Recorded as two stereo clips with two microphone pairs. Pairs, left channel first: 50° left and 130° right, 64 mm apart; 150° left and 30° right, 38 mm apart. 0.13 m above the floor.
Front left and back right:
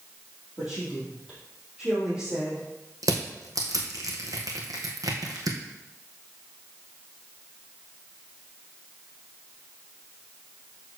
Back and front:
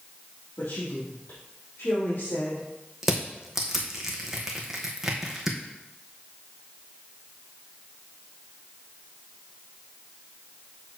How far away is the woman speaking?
About 3.5 m.